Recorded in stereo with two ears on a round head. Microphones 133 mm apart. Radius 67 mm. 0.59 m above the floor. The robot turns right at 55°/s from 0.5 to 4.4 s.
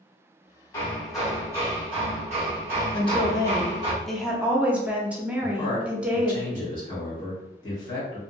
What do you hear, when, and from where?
0.7 s hammering: 160° left, 1.3 m; by 3.9 s 25° right, 1.3 m
2.9 s a woman speaking: 115° left, 0.7 m; by 6.4 s 165° right, 0.7 m
5.4 s a man speaking: 30° left (ahead or behind), 1.5 m